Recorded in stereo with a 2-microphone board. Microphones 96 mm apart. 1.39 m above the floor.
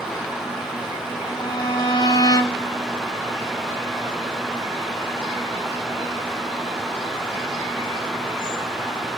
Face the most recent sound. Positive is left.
turn(degrees=45)  # may be behind; listen again after turning